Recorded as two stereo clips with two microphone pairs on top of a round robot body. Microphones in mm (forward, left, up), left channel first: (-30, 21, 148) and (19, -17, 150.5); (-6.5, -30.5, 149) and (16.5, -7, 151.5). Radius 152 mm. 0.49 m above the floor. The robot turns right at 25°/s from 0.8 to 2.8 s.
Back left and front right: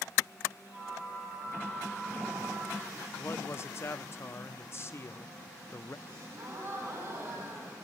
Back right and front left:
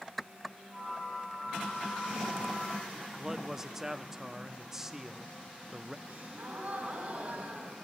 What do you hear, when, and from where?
3.2 s a man speaking: 125° left, 1.0 m
6.1 s a gasp: 5° left, 3.5 m